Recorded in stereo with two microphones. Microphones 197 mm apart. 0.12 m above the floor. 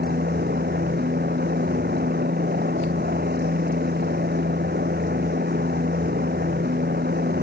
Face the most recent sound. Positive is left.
turn(degrees=-55)  # may be behind; listen again after turning